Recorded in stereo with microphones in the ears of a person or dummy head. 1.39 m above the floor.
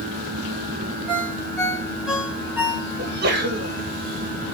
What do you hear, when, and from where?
1.1 s a ringtone: centre (ahead or behind), 3 m
3.0 s a sneeze: 50° right (ahead or behind), 2 m